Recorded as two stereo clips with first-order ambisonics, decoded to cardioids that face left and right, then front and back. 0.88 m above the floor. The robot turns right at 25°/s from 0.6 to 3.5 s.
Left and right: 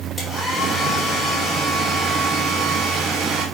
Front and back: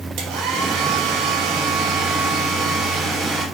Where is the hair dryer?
175° right, 3 m; by 3.5 s 105° right, 3 m.